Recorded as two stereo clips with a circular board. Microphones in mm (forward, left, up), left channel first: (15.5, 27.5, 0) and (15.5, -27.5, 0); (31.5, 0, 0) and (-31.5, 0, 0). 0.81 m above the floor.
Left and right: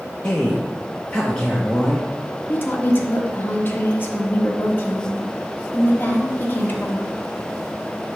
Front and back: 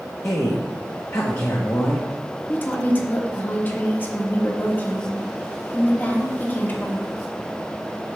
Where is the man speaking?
20° left, 1.0 m.